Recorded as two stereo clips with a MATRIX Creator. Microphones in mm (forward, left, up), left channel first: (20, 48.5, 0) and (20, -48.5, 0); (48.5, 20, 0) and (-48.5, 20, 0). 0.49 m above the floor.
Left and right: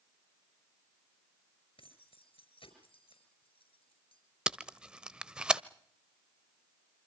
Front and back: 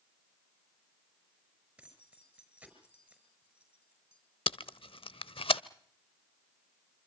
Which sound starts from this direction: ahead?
Tape being pulled, at 4.5 s.